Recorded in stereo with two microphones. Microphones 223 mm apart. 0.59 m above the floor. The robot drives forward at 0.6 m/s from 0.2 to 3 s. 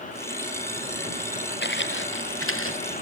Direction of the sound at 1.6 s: 50° left (ahead or behind).